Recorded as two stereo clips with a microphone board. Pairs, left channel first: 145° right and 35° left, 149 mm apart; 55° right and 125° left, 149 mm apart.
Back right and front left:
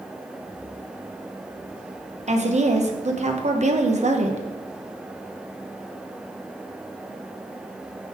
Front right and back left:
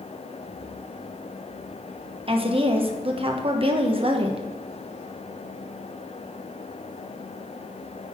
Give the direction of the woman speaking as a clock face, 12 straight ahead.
10 o'clock.